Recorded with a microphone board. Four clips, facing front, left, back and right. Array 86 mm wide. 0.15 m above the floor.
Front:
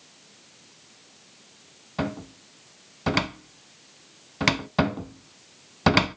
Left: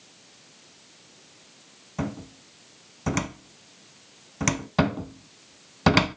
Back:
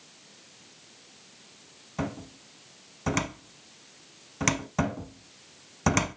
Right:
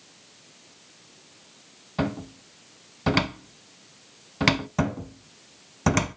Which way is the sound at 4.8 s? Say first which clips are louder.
Left 3 dB, front 5 dB; 40° left.